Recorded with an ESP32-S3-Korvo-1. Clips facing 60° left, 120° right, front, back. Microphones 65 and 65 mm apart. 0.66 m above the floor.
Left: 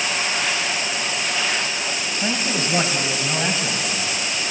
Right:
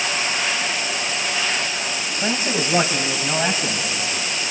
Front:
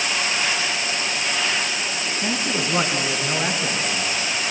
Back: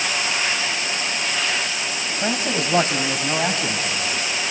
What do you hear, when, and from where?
2.2 s a man speaking: 165° left, 3.5 m; by 4.5 s 170° left, 6 m